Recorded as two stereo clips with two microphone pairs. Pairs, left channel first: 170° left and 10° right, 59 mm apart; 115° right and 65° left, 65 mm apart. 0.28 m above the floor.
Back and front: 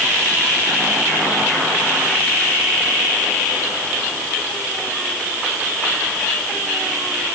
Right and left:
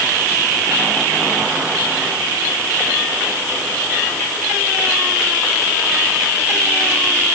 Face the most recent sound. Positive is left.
No sound to turn to.